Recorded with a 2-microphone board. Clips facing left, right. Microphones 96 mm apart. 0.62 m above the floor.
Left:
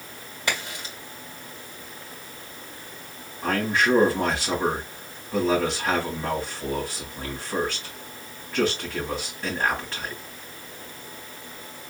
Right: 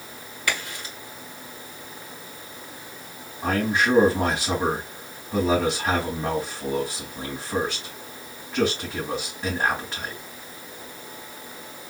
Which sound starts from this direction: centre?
A man speaking, at 3.4 s.